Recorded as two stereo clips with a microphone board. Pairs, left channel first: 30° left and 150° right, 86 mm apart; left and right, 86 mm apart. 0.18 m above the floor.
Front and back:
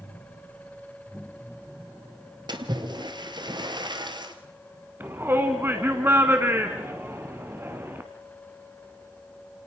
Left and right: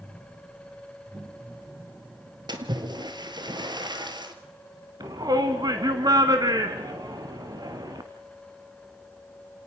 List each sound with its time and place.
2.5 s a splash: 120° right, 1.8 m
5.0 s a shout: 95° right, 1.5 m